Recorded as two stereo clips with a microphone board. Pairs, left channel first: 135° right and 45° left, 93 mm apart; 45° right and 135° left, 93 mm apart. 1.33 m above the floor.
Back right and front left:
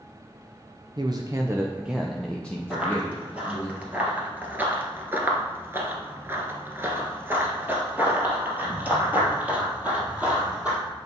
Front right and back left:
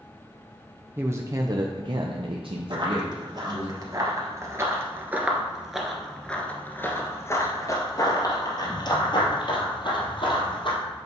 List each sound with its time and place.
1.0 s a man speaking: 70° left, 0.7 m; by 3.7 s 170° left, 1.3 m
2.7 s running footsteps: 120° left, 2 m; by 10.8 s 30° right, 3 m